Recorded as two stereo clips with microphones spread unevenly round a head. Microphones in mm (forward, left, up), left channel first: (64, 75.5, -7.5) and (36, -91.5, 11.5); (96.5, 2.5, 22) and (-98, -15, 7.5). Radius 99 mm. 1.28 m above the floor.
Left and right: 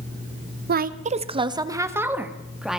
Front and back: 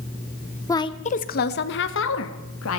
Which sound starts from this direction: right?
A woman speaking, at 0.7 s.